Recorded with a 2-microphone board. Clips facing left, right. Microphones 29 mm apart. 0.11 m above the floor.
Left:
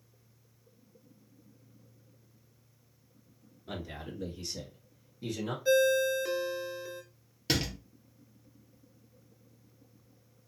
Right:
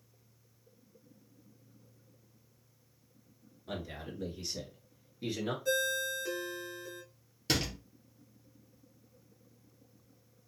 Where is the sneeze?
I don't hear a sneeze.